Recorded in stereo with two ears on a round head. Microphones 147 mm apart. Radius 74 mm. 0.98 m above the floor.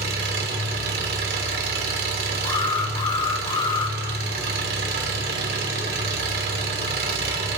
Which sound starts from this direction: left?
An alarm, at 2.4 s.